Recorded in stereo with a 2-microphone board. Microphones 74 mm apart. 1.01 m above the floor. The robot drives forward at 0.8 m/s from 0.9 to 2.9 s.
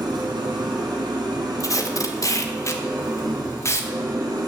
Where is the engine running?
80° right, 4 m; by 4.5 s 60° right (ahead or behind), 4.5 m.